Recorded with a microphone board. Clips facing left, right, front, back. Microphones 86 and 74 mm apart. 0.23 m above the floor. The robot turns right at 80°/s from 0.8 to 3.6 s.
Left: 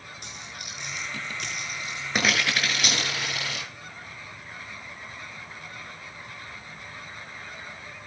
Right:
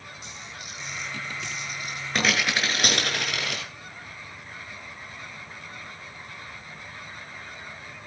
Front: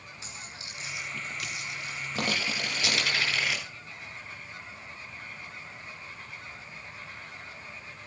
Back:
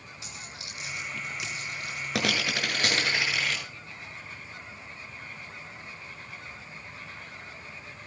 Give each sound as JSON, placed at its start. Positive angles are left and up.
{"t": 0.2, "sound": "a dropped coin", "azimuth_deg": 55, "distance_m": 9.5}